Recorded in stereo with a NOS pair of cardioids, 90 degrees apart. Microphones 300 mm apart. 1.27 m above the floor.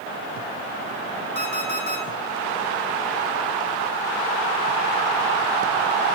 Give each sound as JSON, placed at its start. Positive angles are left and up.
{"t": 1.4, "sound": "an alarm clock", "azimuth_deg": 20, "distance_m": 3.0}